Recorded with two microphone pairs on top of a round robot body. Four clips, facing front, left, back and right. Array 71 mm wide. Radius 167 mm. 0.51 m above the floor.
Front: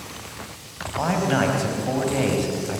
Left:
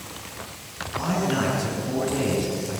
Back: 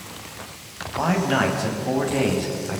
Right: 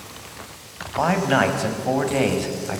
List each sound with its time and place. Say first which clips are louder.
1.0 s a man speaking: right 6 dB, back 1 dB; 90° right, 4 m